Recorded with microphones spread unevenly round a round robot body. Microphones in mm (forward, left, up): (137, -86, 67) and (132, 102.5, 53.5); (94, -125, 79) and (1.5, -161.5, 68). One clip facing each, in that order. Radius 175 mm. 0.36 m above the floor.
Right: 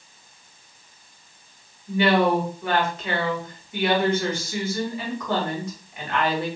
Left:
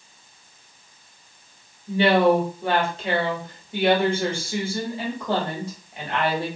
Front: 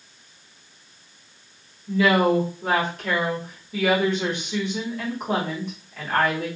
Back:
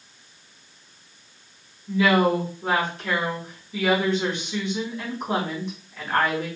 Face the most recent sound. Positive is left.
turn(degrees=45)